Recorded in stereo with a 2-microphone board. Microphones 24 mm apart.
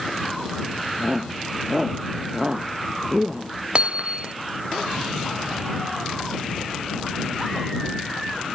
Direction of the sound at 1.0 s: 25° right (ahead or behind).